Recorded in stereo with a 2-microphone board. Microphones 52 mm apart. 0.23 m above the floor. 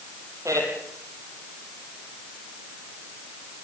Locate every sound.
0.5 s a man speaking: 75° right (ahead or behind), 8.5 m